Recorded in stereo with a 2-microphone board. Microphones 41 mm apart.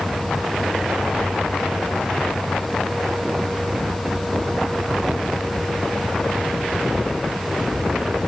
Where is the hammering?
No hammering in this recording.